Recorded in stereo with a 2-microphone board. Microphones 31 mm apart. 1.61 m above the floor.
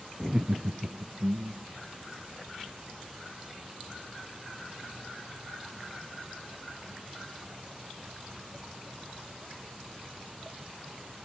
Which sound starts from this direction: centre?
Laughter, at 0.2 s.